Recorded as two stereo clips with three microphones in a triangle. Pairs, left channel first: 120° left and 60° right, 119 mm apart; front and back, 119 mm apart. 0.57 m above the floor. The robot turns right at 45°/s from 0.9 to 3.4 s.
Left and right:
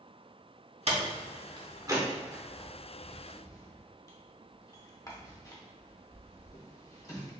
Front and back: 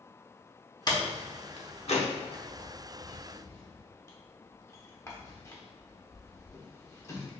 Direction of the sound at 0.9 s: 50° right.